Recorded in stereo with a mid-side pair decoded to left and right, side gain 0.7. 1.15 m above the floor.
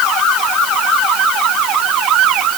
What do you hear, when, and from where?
Only background noise.